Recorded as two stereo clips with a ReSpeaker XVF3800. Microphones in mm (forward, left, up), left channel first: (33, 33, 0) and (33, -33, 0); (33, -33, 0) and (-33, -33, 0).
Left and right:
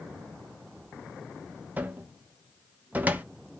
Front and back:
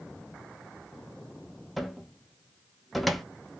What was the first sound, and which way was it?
A cupboard door, 90° right.